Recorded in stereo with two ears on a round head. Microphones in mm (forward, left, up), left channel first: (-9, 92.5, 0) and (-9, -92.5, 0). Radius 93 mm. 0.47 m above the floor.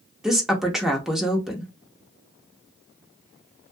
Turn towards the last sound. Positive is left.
turn(degrees=-5)  # may be behind; listen again after turning